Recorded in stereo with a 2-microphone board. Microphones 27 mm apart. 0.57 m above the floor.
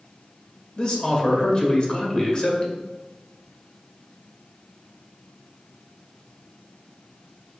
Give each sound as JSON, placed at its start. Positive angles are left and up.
{"t": 0.8, "sound": "a man speaking", "side_deg": 40, "distance_m": 1.8}